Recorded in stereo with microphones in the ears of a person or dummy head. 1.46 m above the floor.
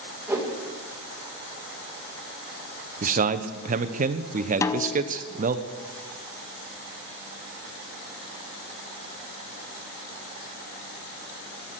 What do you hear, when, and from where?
0.3 s a whoosh: 15° right (ahead or behind), 2 m
3.0 s a man speaking: 45° right (ahead or behind), 0.9 m
4.6 s a snare drum: 15° left (ahead or behind), 0.6 m